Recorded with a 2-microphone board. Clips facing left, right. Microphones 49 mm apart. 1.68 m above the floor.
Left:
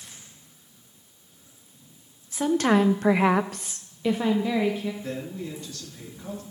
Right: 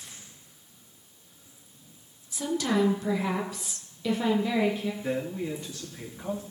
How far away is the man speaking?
About 3 m.